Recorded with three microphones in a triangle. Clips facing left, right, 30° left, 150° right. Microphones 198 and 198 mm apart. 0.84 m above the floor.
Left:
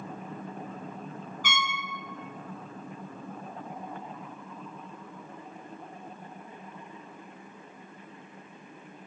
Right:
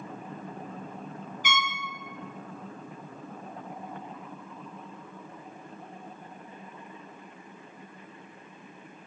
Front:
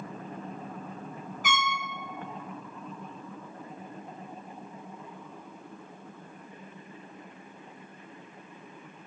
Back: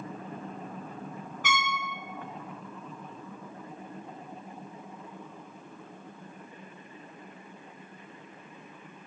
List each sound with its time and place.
1.4 s a trumpet: 20° right, 1.6 m